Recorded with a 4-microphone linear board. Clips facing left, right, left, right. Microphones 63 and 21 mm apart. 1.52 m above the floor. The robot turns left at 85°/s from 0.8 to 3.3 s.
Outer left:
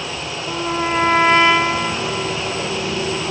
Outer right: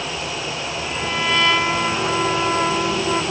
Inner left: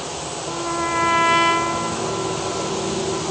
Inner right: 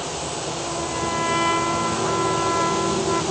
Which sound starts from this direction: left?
A trumpet, at 0.5 s.